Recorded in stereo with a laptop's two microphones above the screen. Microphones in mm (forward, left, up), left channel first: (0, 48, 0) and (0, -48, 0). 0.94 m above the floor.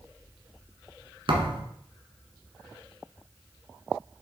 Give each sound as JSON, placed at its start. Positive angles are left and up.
{"t": 1.3, "sound": "a thud", "side_deg": -65, "distance_m": 1.7}